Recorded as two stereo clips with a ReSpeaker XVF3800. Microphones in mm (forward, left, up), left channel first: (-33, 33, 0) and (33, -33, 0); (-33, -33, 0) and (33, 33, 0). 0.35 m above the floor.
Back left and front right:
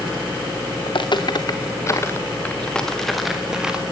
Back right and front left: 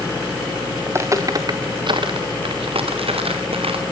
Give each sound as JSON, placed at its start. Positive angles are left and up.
{"t": 0.9, "sound": "footsteps", "azimuth_deg": 110, "distance_m": 2.5}